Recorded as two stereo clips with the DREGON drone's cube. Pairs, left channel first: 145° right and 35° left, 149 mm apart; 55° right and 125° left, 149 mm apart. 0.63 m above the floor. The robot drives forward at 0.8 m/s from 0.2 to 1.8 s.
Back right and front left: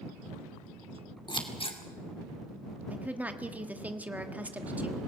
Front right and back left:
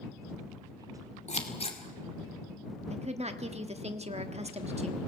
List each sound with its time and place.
1.3 s scissors: 90° right, 2 m; by 1.8 s 100° right, 2.5 m
2.9 s a woman speaking: 110° left, 1.5 m